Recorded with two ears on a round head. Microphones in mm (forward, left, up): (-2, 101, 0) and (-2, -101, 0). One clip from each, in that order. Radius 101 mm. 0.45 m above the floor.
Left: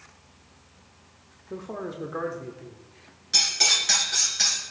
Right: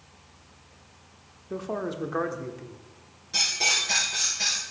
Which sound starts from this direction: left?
Cutlery clinking, at 3.3 s.